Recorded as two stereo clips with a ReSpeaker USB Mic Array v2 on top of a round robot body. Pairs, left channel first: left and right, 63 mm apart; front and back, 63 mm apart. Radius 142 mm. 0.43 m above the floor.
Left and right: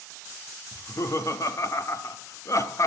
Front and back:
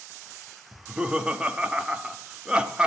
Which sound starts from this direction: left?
Laughter, at 0.7 s.